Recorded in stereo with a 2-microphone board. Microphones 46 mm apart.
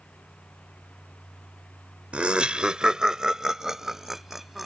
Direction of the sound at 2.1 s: 25° right (ahead or behind).